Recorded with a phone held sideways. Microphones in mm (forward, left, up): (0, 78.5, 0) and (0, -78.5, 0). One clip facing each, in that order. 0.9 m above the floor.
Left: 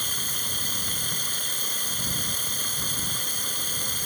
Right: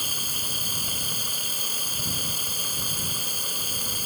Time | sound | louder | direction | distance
0.0 | running water | even | 10° right (ahead or behind) | ?